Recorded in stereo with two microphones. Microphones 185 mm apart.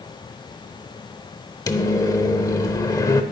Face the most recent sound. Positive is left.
turn(degrees=20)  # may be behind; listen again after turning